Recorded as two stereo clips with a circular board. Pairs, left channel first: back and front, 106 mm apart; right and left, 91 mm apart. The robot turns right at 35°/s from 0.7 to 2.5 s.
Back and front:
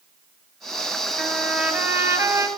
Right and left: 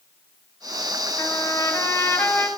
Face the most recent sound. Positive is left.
turn(degrees=-30)